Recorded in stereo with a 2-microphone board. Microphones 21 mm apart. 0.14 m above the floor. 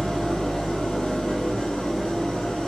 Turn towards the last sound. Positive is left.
turn(degrees=70)  # may be behind; listen again after turning